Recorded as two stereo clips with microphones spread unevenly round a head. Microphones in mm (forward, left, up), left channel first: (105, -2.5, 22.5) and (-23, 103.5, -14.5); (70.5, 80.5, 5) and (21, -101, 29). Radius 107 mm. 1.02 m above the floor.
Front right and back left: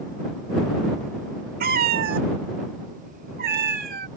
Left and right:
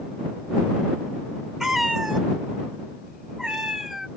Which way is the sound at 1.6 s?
175° left.